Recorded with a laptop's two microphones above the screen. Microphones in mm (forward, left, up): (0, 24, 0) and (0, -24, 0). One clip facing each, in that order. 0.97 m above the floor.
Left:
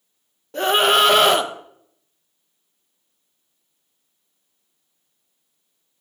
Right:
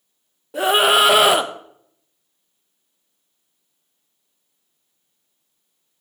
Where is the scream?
5° right (ahead or behind), 0.5 m.